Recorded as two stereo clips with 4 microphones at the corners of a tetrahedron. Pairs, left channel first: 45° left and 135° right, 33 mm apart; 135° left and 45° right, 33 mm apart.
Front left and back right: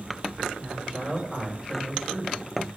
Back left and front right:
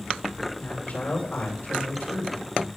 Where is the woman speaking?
140° left, 3.5 m.